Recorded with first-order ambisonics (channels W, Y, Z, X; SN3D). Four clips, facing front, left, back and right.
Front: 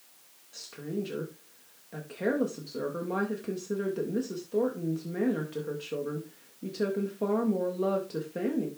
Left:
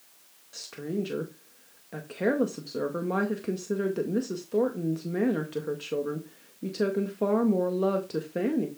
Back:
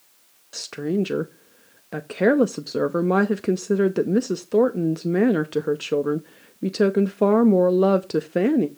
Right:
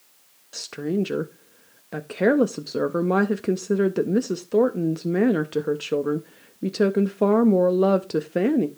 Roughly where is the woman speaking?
Behind right.